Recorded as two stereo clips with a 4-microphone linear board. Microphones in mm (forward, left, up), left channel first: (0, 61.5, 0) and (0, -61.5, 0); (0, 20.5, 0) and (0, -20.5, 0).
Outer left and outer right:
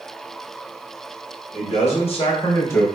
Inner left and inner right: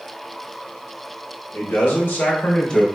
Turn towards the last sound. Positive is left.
turn(degrees=10)  # may be behind; listen again after turning